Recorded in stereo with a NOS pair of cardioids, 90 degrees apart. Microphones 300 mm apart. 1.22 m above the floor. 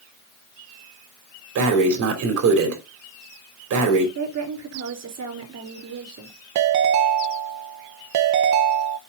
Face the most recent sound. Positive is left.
turn(degrees=-70)